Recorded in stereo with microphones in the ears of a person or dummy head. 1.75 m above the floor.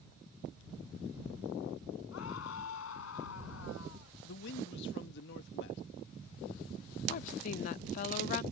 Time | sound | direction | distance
2.1 | a scream | 75° left (ahead or behind) | ?
4.2 | a man speaking | 65° left (ahead or behind) | ?
7.1 | a woman speaking | 40° left (ahead or behind) | ?